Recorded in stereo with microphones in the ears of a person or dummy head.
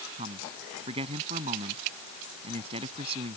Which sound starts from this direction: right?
A man speaking, at 0.2 s.